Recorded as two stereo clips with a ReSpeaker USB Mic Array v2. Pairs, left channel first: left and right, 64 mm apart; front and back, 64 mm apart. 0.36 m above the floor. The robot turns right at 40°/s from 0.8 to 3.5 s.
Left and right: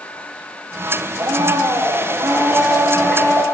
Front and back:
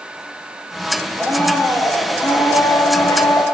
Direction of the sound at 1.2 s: 70° right.